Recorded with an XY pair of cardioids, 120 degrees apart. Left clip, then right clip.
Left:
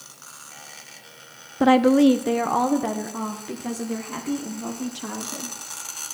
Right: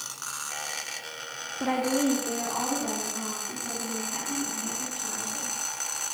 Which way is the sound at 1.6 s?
60° left.